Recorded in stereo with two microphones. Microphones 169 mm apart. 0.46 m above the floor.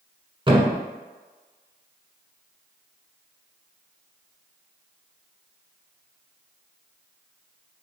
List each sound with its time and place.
0.5 s a thud: 30° right (ahead or behind), 1.3 m